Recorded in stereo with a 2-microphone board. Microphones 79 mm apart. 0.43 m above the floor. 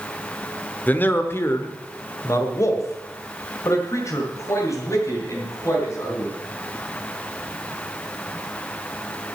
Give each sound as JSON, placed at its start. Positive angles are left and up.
{"t": 0.9, "sound": "a man speaking", "side_deg": 20, "distance_m": 1.0}